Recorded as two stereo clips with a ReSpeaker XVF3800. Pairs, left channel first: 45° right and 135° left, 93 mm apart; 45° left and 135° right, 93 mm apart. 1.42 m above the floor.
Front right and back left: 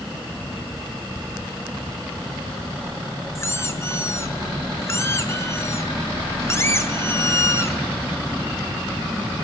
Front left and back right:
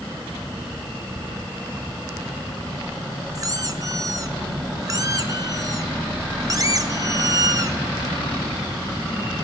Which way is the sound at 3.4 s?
100° right.